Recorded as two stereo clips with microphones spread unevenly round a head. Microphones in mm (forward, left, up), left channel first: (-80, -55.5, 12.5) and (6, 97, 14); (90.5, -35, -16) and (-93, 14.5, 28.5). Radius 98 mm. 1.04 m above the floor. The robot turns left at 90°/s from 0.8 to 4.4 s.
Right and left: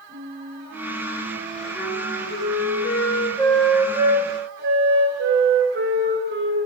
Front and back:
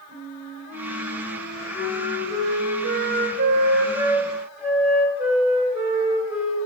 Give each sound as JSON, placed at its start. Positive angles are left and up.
{"t": 0.1, "sound": "a flute", "azimuth_deg": 50, "distance_m": 4.0}